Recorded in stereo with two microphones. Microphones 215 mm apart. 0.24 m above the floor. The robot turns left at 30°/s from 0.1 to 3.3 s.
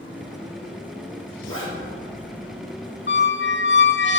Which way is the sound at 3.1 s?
55° left (ahead or behind).